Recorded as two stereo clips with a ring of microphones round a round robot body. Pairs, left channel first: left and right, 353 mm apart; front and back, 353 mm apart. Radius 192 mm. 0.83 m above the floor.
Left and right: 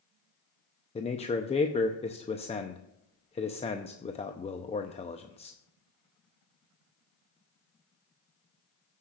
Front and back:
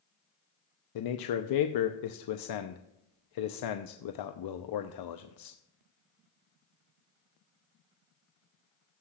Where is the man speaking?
20° left, 0.7 m.